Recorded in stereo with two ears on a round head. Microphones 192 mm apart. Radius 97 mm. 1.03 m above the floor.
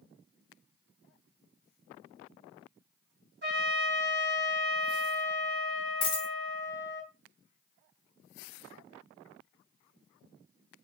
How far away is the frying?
I don't hear frying.